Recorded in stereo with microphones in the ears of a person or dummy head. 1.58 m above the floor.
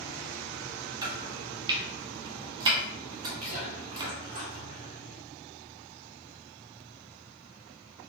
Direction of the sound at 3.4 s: 40° right (ahead or behind).